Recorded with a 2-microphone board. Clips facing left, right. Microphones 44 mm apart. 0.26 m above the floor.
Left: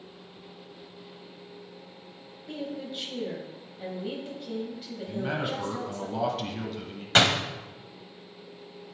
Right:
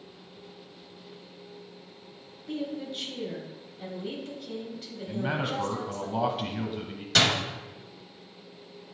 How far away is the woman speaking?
About 1.1 m.